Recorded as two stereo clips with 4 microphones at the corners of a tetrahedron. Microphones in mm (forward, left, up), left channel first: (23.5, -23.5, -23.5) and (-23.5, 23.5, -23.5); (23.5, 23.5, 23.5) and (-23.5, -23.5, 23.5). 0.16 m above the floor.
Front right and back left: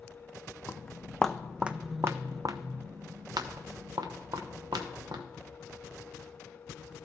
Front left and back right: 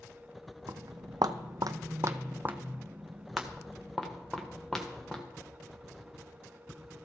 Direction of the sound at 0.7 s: 110° right.